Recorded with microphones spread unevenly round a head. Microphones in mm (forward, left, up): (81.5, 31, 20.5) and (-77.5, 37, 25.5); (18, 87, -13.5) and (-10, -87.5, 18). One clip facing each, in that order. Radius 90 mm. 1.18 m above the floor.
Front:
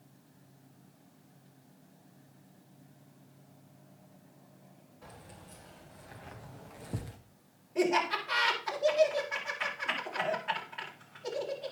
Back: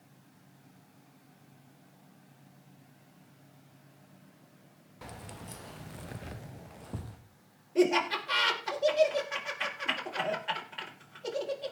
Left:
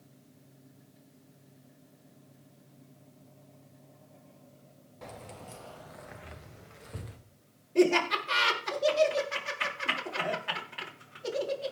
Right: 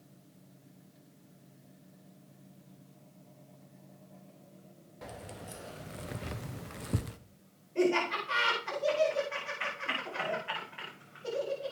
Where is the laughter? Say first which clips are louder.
Back 3 dB, left 4 dB; 120° left, 4 m.